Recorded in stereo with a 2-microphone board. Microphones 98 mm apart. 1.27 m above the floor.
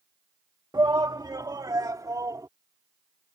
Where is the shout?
40° right (ahead or behind); by 2.5 s 35° right (ahead or behind).